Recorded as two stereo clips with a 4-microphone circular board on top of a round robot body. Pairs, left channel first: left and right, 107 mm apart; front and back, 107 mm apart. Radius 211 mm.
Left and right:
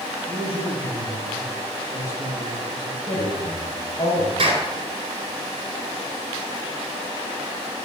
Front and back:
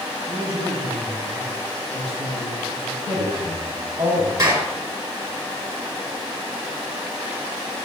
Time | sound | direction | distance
0.3 | a man speaking | 170° right | 5.5 m
3.1 | a woman speaking | 135° left | 4 m
4.4 | a clap | 130° right | 5 m